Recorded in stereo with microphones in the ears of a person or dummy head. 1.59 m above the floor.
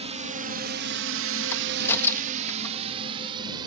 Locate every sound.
0.0 s a drone: 30° right (ahead or behind); by 3.7 s 25° right (ahead or behind)
1.5 s a crack: 10° left (ahead or behind)